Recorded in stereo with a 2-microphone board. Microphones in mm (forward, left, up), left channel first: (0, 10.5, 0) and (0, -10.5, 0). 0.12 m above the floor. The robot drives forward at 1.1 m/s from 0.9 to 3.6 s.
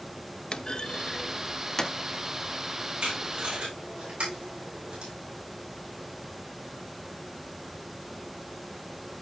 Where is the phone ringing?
No phone ringing in this recording.